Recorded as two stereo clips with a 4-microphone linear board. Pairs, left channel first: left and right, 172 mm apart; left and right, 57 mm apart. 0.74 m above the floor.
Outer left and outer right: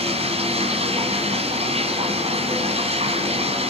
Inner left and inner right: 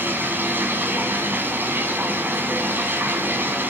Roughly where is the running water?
Right.